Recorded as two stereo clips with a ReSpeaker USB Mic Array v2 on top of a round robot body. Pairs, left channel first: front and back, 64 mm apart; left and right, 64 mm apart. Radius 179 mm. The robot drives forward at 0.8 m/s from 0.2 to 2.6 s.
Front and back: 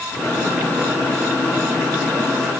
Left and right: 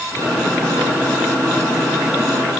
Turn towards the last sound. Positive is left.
No sound to turn to.